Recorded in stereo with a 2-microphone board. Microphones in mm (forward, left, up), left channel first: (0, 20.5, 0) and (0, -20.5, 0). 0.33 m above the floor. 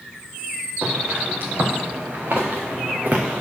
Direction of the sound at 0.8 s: 60° right (ahead or behind).